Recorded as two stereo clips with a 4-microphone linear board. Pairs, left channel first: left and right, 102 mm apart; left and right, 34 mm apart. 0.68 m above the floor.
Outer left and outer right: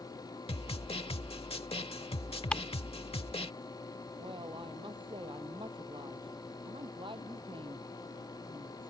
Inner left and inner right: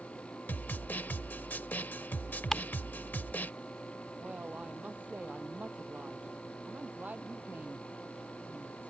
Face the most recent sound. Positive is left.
turn(degrees=-60)  # may be behind; listen again after turning